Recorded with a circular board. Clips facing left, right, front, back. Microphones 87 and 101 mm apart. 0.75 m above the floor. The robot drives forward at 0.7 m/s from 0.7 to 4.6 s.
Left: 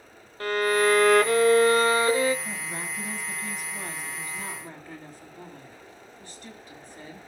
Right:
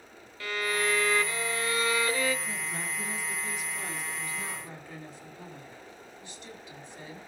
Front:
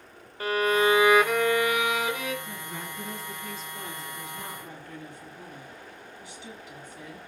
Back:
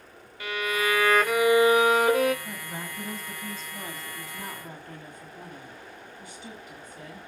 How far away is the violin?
About 0.7 m.